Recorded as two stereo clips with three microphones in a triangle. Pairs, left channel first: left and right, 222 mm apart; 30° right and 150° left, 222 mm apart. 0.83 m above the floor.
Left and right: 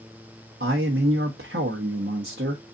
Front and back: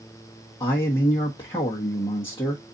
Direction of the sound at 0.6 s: 95° right.